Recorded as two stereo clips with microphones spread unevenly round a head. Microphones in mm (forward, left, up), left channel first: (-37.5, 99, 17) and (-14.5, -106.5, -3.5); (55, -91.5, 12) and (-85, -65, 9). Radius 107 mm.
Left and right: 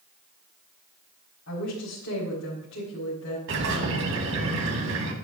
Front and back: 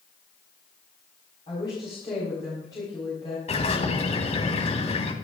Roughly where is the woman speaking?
Ahead left.